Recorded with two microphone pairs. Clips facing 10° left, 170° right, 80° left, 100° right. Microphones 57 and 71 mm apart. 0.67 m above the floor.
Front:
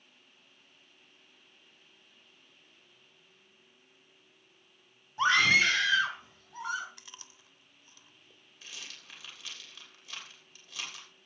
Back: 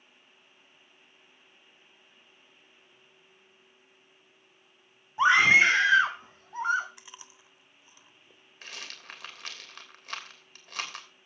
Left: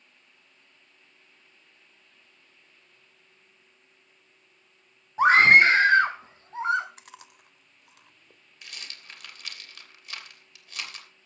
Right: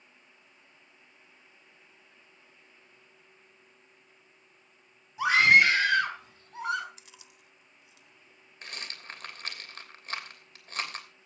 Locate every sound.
5.2 s a scream: 120° left, 1.6 m; by 6.9 s 140° left, 4 m
7.0 s chewing: 115° left, 1.1 m
8.6 s a rattle: 145° right, 3 m